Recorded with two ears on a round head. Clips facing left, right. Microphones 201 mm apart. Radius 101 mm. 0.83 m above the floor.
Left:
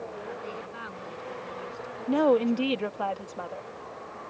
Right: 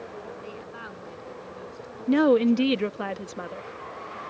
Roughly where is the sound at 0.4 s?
Centre.